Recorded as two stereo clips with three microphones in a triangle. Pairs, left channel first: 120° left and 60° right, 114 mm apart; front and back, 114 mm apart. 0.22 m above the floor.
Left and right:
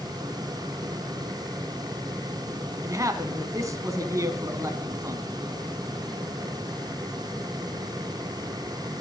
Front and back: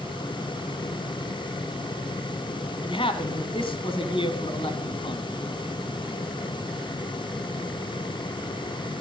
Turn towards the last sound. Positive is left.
turn(degrees=-10)